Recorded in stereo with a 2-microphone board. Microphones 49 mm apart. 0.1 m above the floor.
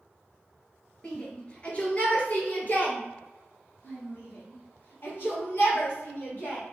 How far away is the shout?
About 1.8 m.